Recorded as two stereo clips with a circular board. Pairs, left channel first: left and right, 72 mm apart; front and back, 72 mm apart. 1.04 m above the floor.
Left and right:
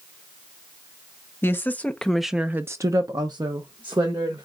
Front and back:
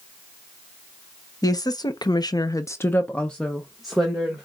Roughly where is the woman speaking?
Ahead left.